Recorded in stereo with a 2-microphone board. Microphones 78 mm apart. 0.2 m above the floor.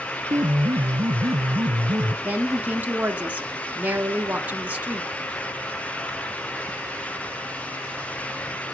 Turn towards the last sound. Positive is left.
turn(degrees=-25)  # may be behind; listen again after turning